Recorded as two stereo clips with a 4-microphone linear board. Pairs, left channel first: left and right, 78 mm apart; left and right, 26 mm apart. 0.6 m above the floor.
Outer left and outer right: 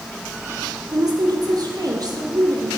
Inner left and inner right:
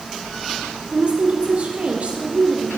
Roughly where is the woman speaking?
Right.